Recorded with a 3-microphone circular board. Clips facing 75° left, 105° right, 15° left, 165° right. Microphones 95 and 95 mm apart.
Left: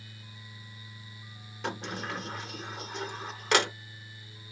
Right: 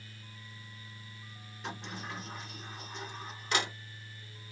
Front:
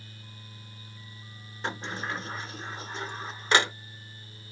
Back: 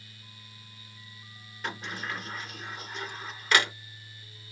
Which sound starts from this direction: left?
A sliding door, at 1.6 s.